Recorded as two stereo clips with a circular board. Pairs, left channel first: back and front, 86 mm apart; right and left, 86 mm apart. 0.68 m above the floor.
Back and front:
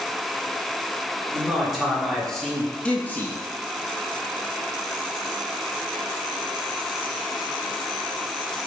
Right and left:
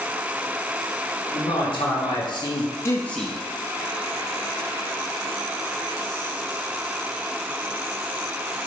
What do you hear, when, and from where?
1.3 s a man speaking: 85° right, 1.7 m; by 3.4 s 160° left, 0.6 m